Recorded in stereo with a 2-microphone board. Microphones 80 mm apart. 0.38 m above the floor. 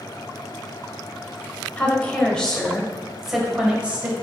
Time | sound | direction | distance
1.8 | a woman speaking | 20° left (ahead or behind) | 2 m